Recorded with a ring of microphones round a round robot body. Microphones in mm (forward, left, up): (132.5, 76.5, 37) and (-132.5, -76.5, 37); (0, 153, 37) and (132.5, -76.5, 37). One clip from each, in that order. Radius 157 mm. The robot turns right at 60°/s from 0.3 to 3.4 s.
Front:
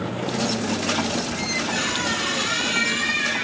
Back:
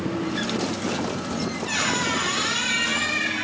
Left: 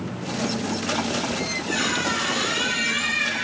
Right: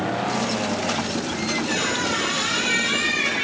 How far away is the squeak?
About 3.5 m.